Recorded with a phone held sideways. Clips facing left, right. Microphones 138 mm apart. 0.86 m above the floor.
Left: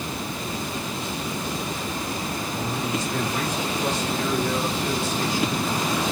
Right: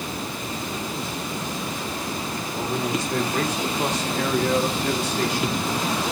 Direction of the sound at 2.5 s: 60° right (ahead or behind).